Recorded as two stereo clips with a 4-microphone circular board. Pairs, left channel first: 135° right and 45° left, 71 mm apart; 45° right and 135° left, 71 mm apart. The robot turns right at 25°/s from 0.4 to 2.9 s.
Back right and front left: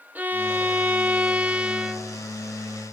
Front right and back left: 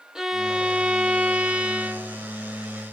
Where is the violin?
65° left, 0.9 m; by 2.2 s 110° left, 0.9 m.